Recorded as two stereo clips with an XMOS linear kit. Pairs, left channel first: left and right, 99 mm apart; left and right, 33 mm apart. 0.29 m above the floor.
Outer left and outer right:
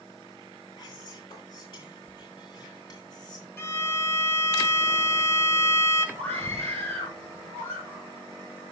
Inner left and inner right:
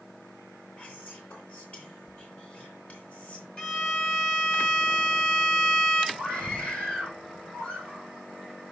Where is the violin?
25° left (ahead or behind), 1.0 m.